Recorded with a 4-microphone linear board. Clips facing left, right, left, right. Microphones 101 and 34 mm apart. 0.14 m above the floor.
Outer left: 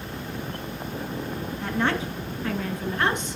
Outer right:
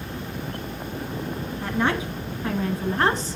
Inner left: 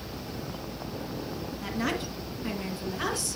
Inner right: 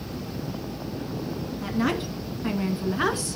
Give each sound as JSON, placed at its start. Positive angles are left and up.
{"t": 1.6, "sound": "a woman speaking", "side_deg": -10, "distance_m": 1.2}